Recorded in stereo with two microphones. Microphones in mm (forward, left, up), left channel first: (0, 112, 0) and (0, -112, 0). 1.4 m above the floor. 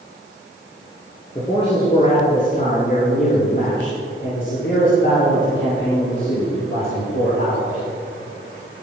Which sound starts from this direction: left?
A man speaking, at 1.4 s.